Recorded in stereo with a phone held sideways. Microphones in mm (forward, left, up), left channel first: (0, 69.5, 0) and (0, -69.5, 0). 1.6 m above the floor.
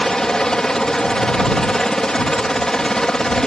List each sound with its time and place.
0.0 s a helicopter: 5° left (ahead or behind)